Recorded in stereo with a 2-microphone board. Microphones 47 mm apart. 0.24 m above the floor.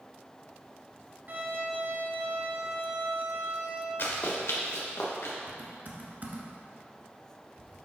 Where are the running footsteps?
60° left (ahead or behind), 2.0 m; by 5.3 s 70° left (ahead or behind), 2.5 m.